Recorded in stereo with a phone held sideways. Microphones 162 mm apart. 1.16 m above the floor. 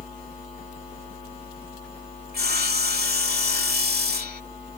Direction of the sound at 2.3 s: 70° right (ahead or behind).